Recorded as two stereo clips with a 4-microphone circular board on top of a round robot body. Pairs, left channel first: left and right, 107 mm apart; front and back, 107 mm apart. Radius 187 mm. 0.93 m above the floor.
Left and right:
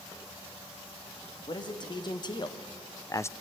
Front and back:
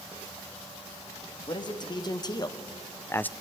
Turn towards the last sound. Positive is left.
turn(degrees=60)